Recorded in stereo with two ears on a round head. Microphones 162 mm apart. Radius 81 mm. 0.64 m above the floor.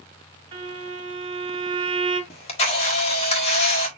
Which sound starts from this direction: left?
A camera shutter, at 2.3 s.